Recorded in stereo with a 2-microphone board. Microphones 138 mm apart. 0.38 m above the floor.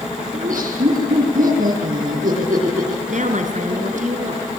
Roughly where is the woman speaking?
Right.